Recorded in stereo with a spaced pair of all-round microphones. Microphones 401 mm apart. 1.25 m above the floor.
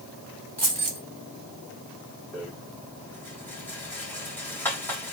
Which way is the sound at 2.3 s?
5° left (ahead or behind).